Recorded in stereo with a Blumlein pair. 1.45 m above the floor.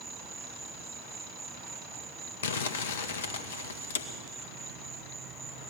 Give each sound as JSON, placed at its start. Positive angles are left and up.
{"t": 0.0, "sound": "an insect", "azimuth_deg": -15, "distance_m": 1.1}
{"t": 2.4, "sound": "crumpling", "azimuth_deg": 60, "distance_m": 1.3}